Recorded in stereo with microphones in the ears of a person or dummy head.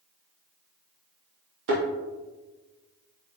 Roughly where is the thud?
Right.